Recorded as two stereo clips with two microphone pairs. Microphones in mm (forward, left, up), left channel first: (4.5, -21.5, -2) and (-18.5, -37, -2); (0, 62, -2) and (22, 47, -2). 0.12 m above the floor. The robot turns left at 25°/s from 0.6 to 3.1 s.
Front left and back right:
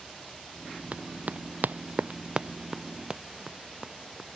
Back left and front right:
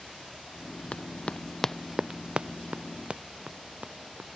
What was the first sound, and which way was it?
Running footsteps, 175° right.